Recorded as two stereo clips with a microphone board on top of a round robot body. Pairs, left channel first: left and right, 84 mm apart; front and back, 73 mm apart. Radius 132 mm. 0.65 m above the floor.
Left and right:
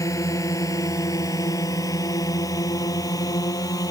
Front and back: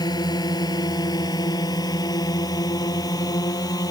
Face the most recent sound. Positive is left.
turn(degrees=40)